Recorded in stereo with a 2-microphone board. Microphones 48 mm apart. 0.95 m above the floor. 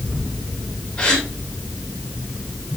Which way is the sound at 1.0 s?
20° left (ahead or behind).